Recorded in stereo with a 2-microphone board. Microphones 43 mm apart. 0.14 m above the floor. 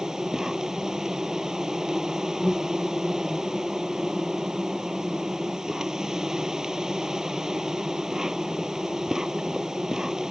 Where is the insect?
15° right (ahead or behind).